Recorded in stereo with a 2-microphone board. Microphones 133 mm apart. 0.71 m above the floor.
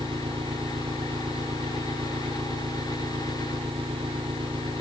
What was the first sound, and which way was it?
An engine running, 40° right (ahead or behind).